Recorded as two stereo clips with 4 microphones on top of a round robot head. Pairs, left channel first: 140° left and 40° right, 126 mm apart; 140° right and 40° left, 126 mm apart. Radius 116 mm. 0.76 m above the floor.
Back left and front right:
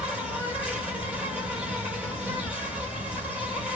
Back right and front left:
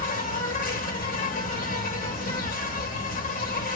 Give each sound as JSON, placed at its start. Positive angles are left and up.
{"t": 0.0, "sound": "an insect", "azimuth_deg": -120, "distance_m": 1.4}